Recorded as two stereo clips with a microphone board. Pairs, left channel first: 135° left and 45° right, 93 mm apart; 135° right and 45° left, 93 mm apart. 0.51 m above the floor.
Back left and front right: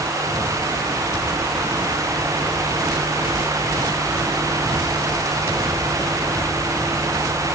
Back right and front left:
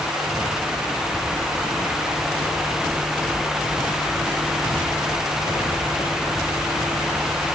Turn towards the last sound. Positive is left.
No sound to turn to.